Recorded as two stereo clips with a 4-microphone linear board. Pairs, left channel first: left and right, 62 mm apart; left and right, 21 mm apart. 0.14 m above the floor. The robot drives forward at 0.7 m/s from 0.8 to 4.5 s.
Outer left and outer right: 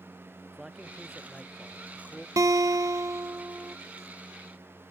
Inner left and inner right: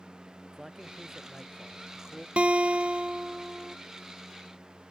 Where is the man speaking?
5° right (ahead or behind).